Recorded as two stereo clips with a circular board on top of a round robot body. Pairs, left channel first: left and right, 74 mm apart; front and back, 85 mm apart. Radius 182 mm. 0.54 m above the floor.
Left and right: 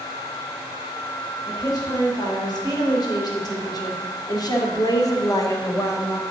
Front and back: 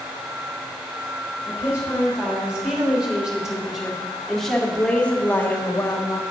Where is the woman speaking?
110° left, 3.5 m; by 6.2 s 45° left, 1.5 m.